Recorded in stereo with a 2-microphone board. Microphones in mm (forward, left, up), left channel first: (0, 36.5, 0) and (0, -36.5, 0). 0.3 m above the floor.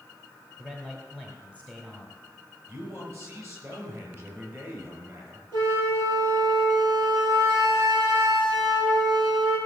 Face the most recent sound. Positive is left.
turn(degrees=-75)  # may be behind; listen again after turning